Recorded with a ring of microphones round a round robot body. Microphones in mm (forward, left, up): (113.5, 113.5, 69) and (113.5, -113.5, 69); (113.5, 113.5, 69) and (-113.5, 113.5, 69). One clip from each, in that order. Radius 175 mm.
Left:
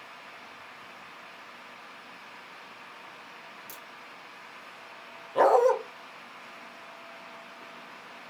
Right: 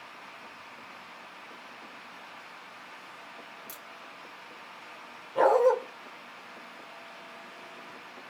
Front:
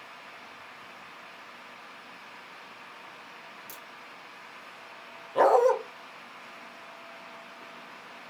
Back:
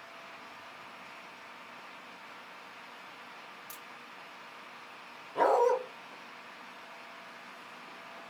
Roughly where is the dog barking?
Ahead left.